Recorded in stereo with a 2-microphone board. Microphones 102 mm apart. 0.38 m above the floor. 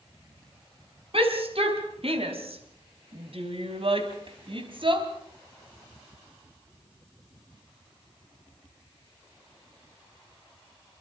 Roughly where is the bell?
No bell in this recording.